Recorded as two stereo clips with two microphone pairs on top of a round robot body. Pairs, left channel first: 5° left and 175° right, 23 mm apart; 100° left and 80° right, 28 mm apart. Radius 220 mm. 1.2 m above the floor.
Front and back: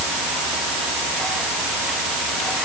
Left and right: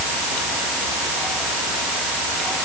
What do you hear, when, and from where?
Only background noise.